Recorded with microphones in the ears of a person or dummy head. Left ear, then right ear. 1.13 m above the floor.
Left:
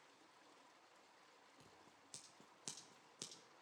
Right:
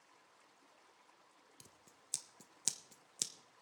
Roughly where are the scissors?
Right.